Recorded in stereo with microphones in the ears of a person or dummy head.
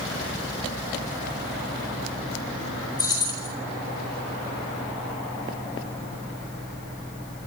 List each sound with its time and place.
3.0 s keys jangling: 20° left (ahead or behind), 5 m